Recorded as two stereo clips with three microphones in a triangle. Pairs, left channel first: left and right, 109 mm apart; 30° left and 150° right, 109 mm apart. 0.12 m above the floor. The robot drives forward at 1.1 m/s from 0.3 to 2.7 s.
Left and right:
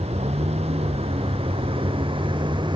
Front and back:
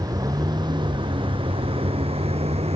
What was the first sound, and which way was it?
A vehicle, 95° right.